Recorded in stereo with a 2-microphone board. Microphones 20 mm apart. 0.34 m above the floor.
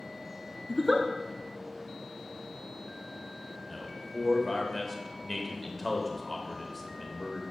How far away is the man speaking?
About 1.1 m.